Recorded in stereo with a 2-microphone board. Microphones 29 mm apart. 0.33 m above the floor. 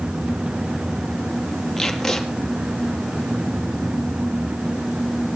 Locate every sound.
1.8 s tape being pulled: 10° left (ahead or behind), 3 m